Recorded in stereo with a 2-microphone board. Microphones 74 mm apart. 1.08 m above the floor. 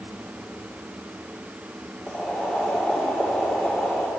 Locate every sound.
2.1 s boiling: 10° left (ahead or behind), 2.5 m